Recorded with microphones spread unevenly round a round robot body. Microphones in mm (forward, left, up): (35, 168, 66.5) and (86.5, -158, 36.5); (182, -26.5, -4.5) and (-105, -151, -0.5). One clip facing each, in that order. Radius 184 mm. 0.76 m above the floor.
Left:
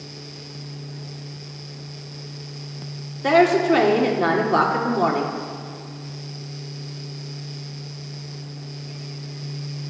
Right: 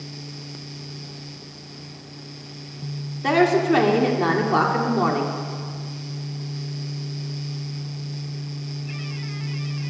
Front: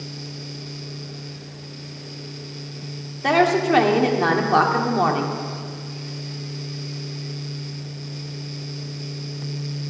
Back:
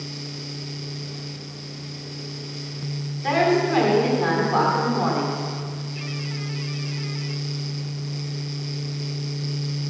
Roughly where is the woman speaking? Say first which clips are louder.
Left 1 dB, front 2 dB; ahead.